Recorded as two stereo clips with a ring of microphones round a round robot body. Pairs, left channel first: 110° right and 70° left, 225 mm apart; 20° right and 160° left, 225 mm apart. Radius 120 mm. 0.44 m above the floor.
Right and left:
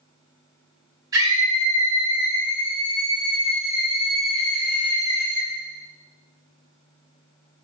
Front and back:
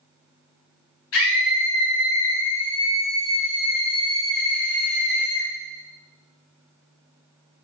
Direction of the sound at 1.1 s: 5° right.